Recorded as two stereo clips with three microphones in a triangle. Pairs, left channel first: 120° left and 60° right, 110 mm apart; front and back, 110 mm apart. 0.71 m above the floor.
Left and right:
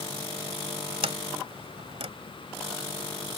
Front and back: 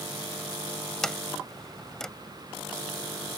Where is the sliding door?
85° right.